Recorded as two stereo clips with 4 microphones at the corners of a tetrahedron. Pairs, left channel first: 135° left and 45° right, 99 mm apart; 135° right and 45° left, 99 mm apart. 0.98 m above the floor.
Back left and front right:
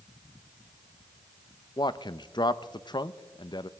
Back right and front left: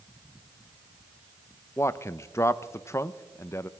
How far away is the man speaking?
About 0.5 m.